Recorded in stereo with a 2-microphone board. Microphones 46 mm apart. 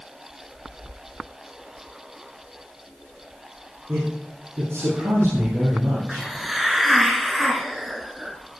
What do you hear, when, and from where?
3.9 s a man speaking: 70° right (ahead or behind), 6 m
6.1 s a hiss: 5° right (ahead or behind), 1.7 m